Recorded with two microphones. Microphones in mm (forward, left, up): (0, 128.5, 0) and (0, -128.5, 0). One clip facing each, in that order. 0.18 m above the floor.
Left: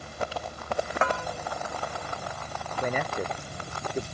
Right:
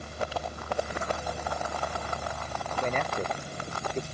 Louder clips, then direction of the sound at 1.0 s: Left 4 dB; 85° left.